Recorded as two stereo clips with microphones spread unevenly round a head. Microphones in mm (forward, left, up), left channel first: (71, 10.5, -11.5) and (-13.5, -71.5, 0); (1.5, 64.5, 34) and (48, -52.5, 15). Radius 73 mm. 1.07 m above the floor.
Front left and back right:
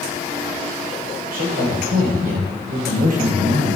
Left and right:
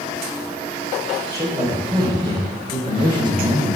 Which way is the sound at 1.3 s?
135° right.